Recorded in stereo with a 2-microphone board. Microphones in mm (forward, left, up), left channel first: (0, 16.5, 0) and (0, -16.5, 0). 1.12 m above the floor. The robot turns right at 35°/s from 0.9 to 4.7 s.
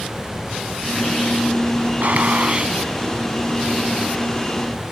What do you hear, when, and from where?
2.0 s a gunshot: 55° right (ahead or behind); by 2.8 s 30° right (ahead or behind)